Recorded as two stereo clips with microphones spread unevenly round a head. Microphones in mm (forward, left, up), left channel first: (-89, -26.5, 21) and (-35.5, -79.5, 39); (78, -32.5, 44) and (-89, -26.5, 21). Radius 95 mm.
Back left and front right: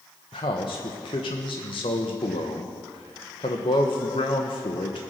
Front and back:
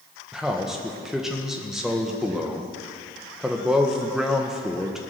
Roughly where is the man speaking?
Left.